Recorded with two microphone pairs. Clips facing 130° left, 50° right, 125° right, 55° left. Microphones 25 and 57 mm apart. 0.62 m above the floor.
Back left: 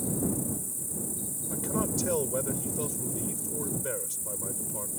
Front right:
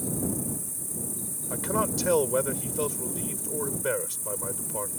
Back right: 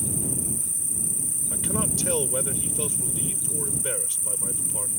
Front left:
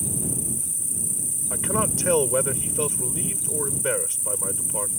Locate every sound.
0.0 s an insect: 75° right
1.5 s a man speaking: 5° left